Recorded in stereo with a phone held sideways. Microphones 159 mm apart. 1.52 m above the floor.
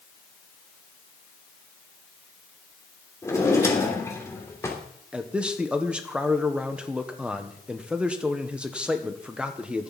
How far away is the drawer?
About 3 m.